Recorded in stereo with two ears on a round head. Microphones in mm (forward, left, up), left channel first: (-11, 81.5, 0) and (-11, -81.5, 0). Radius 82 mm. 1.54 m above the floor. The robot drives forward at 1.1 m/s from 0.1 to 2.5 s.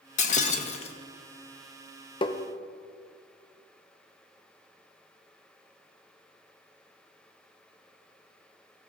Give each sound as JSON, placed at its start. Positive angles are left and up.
{"t": 0.2, "sound": "breaking glass", "side_deg": 40, "distance_m": 0.9}
{"t": 2.2, "sound": "tapping", "side_deg": 25, "distance_m": 0.7}